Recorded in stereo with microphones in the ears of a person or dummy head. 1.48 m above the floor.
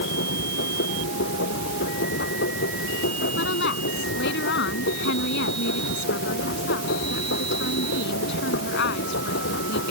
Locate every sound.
0.0 s a machine running: 60° left (ahead or behind)
3.4 s a woman speaking: 60° left (ahead or behind)